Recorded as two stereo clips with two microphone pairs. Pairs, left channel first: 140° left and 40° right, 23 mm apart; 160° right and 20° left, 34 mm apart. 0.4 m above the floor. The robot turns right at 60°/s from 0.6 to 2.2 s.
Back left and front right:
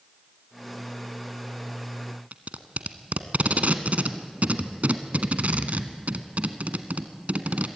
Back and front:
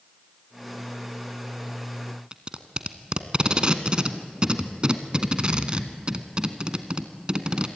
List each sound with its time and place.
2.3 s tape being pulled: 40° right, 1.3 m